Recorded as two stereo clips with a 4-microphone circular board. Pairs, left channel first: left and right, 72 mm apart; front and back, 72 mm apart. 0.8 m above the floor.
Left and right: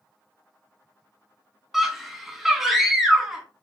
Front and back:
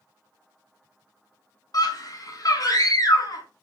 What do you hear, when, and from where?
1.7 s a scream: 5° right, 1.2 m